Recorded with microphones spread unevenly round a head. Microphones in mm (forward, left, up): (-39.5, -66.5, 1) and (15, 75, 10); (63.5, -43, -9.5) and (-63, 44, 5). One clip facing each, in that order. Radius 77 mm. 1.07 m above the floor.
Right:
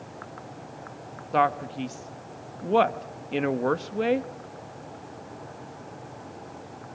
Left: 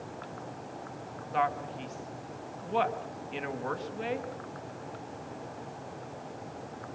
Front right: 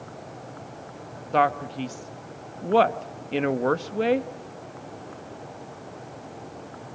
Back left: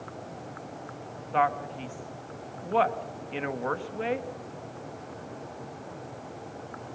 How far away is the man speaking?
About 1.1 m.